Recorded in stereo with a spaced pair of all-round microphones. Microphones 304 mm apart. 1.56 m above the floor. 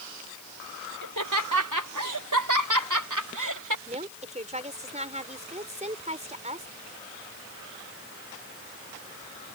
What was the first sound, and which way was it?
Laughter, 85° right.